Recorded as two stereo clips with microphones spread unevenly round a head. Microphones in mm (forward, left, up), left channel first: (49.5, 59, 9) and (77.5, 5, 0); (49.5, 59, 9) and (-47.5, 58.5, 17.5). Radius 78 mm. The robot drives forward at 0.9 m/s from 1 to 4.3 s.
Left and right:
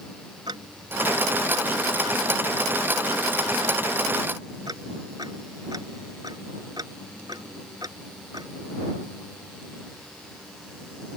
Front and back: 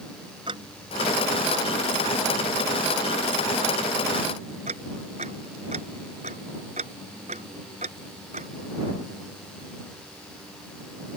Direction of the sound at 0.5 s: 115° right.